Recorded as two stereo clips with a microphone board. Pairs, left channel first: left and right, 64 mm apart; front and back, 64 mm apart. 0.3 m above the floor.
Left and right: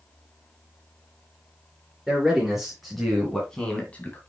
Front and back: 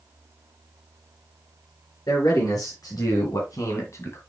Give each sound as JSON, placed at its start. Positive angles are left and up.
{"t": 2.1, "sound": "a man speaking", "azimuth_deg": -5, "distance_m": 4.5}